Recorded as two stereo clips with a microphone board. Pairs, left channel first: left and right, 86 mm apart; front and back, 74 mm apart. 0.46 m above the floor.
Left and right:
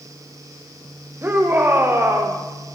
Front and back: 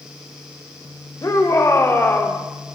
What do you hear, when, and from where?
1.2 s a shout: 30° right, 2.5 m; by 2.4 s 55° right, 1.7 m